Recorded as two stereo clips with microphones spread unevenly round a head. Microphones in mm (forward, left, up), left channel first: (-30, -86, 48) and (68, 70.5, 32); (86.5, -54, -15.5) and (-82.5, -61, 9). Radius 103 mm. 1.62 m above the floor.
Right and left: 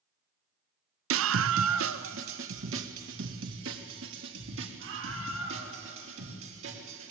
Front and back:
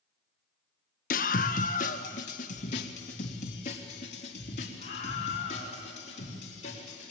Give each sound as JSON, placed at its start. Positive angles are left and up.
{"t": 1.1, "sound": "a scream", "azimuth_deg": 55, "distance_m": 0.7}